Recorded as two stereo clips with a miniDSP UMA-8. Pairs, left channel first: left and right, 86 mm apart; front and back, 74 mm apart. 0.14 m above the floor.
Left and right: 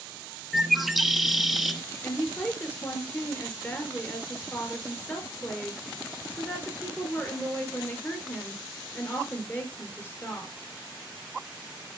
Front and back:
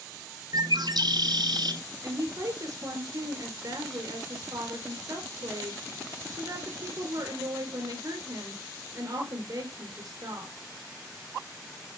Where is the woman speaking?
155° left, 3 m.